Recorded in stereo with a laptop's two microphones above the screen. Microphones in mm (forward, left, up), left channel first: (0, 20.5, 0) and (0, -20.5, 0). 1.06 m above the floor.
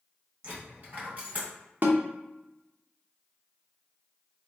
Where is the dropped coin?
35° right (ahead or behind), 1.9 m.